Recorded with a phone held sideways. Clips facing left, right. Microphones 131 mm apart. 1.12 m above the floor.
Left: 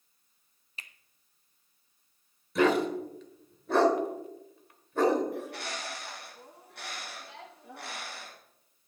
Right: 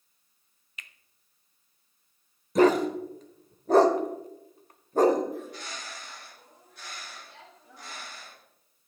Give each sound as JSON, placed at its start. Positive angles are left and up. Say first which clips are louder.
{"t": 0.8, "sound": "a finger snap", "louder": "even", "side_deg": 35, "distance_m": 0.6}
{"t": 2.5, "sound": "a dog barking", "louder": "right 4 dB", "side_deg": -40, "distance_m": 1.0}
{"t": 5.3, "sound": "a bird", "louder": "left 1 dB", "side_deg": 70, "distance_m": 1.5}